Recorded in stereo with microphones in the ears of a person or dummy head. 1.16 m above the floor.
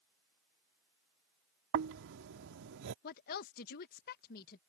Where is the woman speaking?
50° left (ahead or behind).